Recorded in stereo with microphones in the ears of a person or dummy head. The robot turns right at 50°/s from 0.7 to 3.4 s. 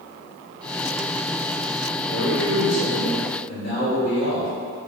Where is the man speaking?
50° left, 2.0 m; by 4.5 s 115° left, 2.0 m.